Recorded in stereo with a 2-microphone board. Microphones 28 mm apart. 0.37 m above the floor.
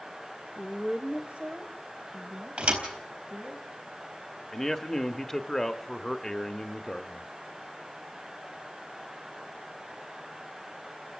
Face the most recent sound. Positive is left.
turn(degrees=10)  # may be behind; listen again after turning